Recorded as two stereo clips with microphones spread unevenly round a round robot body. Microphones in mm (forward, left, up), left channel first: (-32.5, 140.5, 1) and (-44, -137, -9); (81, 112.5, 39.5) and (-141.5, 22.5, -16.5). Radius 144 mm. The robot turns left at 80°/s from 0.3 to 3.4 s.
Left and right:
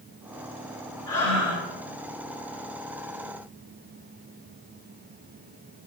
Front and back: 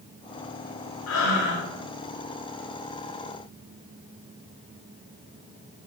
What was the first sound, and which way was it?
Breathing, 15° left.